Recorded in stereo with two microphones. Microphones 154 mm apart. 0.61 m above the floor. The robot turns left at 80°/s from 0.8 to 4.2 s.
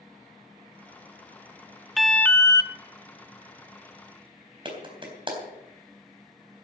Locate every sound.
2.0 s an alarm: straight behind, 0.8 m; by 2.7 s 120° left, 0.8 m
4.7 s a clap: 35° right (ahead or behind), 3.5 m